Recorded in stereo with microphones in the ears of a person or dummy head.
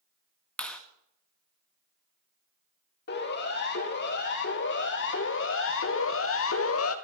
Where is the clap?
Centre (ahead or behind), 1.8 m.